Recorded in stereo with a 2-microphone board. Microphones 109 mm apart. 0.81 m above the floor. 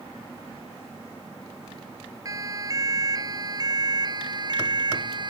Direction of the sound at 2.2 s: 30° right (ahead or behind).